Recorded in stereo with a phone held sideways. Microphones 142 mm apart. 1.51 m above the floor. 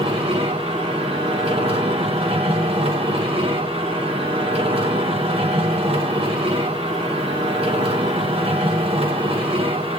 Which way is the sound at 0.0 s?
40° right (ahead or behind).